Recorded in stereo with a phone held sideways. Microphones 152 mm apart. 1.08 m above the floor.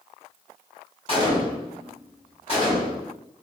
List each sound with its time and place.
1.1 s a gunshot: 40° left (ahead or behind), 1.5 m